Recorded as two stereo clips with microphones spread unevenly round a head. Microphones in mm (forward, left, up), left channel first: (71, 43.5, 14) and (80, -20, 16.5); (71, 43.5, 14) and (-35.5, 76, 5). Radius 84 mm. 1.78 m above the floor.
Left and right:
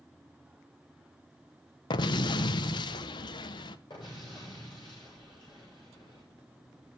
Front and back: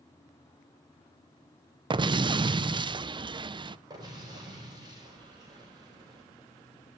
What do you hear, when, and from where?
1.9 s an explosion: 110° left, 0.6 m
3.9 s an explosion: 110° left, 7 m